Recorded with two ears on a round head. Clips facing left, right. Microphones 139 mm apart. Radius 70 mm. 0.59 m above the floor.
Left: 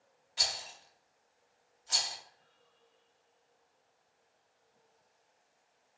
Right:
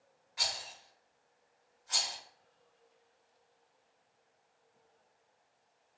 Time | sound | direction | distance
0.4 | a rattle | 35° left (ahead or behind) | 0.6 m